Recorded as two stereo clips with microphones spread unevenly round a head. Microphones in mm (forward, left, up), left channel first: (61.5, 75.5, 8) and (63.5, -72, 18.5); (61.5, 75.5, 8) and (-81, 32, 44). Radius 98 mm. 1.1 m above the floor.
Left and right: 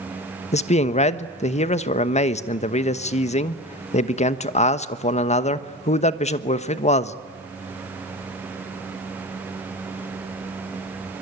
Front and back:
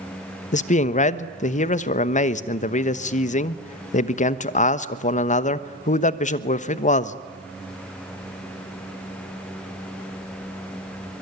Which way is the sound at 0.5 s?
50° left.